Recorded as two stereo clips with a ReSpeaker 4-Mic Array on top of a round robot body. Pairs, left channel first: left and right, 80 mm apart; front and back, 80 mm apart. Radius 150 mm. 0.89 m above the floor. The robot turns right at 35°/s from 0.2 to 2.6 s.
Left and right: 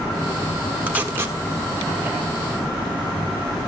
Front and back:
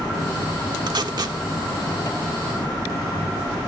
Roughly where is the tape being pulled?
Behind.